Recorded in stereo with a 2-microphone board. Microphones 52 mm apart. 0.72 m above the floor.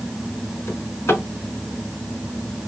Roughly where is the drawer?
Left.